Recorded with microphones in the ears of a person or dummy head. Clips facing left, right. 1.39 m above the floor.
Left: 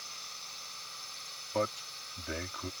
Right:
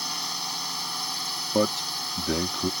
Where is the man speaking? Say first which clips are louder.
Right 9 dB; 55° right (ahead or behind).